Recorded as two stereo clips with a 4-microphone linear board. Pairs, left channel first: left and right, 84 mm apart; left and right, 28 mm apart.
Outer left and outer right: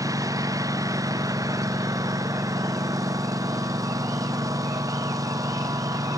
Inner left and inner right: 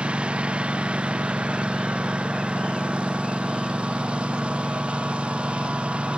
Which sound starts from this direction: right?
A lawn mower, at 0.0 s.